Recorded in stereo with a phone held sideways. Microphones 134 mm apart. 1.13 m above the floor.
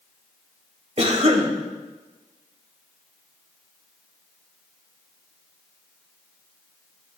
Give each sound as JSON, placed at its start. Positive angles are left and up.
{"t": 1.0, "sound": "a cough", "side_deg": -55, "distance_m": 2.0}